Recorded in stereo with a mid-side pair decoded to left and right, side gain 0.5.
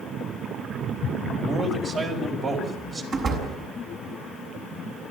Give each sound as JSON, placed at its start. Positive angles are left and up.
{"t": 1.4, "sound": "a man speaking", "azimuth_deg": -45, "distance_m": 5.0}
{"t": 3.1, "sound": "a door slam", "azimuth_deg": -50, "distance_m": 6.5}